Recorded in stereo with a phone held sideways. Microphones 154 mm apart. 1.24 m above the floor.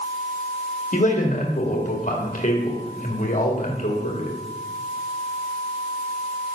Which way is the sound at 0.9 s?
50° left (ahead or behind).